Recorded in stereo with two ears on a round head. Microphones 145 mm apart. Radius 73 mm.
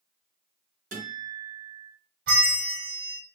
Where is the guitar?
50° right (ahead or behind), 2 m.